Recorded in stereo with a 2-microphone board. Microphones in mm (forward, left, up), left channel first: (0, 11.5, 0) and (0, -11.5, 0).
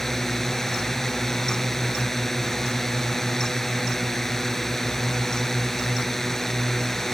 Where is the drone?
10° left (ahead or behind).